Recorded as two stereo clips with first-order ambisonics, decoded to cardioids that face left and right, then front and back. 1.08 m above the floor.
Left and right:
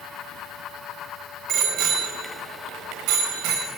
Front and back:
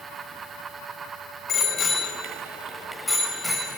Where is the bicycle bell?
55° right, 3 m; by 3.7 s 90° right, 4 m.